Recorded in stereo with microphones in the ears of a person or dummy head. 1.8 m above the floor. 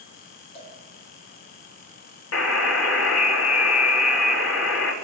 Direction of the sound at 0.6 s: 40° left (ahead or behind).